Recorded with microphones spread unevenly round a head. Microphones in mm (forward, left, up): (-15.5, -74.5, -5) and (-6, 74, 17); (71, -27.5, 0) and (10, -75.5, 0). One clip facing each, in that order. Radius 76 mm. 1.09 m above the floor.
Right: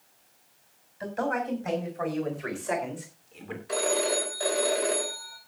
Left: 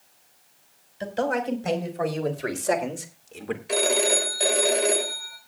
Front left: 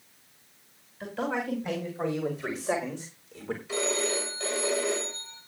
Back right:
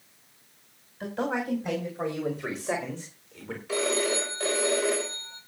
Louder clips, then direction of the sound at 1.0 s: Left 4 dB, back right 1 dB; 140° left.